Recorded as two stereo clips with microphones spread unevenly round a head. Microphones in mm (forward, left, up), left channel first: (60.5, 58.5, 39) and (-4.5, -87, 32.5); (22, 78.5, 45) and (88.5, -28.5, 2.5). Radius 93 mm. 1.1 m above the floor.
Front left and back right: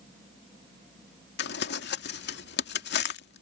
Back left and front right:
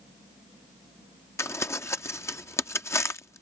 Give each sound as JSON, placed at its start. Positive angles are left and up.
{"t": 1.4, "sound": "crumpling", "azimuth_deg": 50}